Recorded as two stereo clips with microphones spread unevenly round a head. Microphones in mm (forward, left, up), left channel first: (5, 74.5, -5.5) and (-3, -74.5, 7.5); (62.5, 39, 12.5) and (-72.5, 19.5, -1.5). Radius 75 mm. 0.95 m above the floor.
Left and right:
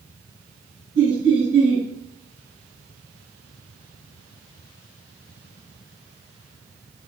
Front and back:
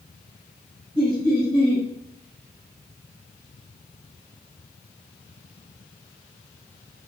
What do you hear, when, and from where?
0.9 s laughter: 105° right, 4 m